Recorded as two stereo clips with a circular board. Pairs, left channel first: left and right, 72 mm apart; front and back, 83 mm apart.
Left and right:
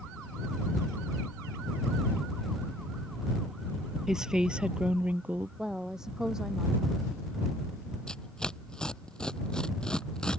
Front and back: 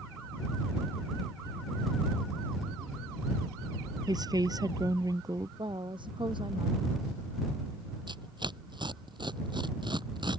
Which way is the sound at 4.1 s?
170° right.